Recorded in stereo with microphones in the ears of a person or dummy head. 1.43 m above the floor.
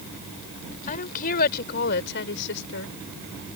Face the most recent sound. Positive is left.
turn(degrees=70)  # may be behind; listen again after turning